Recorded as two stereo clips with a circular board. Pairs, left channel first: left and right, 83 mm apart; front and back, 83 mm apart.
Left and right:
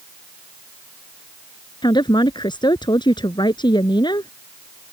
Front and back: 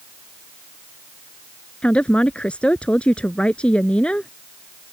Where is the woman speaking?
75° left.